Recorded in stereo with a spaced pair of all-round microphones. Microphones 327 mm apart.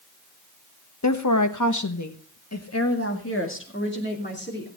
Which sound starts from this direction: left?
A woman speaking, at 1.0 s.